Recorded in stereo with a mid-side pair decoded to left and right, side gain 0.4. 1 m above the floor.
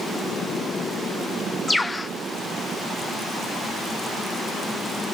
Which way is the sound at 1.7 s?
20° left.